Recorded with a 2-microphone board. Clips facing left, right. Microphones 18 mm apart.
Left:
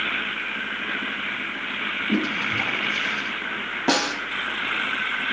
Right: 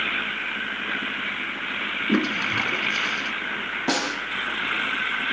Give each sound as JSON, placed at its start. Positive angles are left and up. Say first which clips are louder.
{"t": 2.1, "sound": "a toilet flushing", "louder": "right 2 dB", "side_deg": -80, "distance_m": 1.3}
{"t": 3.9, "sound": "a snare drum", "louder": "left 4 dB", "side_deg": 20, "distance_m": 3.5}